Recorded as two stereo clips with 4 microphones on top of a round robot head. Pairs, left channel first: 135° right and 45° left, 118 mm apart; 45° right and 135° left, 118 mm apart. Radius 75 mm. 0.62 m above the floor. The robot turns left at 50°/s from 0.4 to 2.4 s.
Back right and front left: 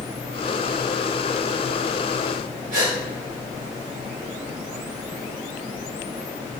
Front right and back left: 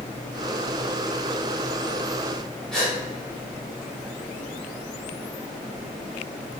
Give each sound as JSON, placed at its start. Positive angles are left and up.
{"t": 2.7, "sound": "a gasp", "azimuth_deg": 40, "distance_m": 2.0}